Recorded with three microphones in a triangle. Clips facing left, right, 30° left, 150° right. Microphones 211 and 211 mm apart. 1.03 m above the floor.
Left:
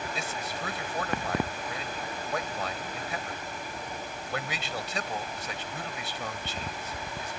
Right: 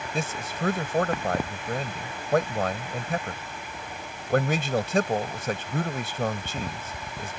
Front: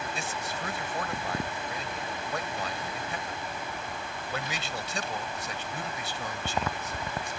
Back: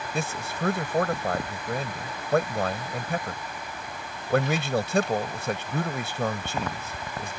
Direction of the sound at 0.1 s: 125° right.